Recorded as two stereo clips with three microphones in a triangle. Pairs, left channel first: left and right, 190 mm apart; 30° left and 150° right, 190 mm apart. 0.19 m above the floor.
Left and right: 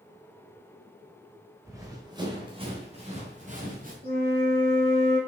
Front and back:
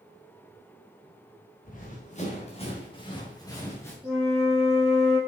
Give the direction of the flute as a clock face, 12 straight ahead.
2 o'clock.